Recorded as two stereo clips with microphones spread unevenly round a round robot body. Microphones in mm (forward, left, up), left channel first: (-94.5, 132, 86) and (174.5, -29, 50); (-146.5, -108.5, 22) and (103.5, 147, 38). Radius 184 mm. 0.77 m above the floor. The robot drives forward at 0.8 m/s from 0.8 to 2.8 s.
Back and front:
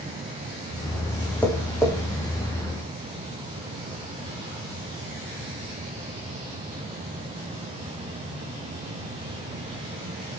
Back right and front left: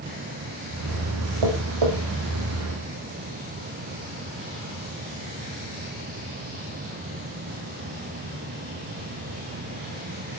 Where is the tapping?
65° left, 7 m; by 1.9 s 70° left, 6.5 m.